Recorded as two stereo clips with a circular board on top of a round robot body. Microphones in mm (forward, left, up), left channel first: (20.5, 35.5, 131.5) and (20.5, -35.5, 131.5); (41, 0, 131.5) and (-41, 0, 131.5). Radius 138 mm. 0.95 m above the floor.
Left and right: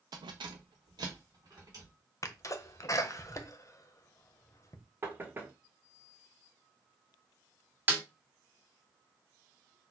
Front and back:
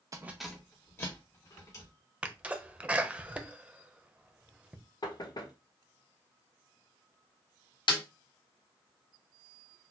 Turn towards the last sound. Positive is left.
turn(degrees=-25)